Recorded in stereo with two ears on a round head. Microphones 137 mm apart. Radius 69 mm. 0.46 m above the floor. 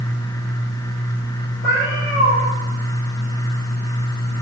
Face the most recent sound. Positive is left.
turn(degrees=65)  # may be behind; listen again after turning